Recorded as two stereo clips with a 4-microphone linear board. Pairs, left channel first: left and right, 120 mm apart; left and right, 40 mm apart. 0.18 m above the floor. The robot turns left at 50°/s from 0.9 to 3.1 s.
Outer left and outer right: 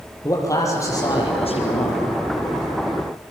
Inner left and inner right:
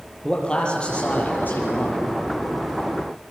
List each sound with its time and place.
0.2 s a man speaking: 155° left, 5.5 m; by 2.0 s 95° left, 5.5 m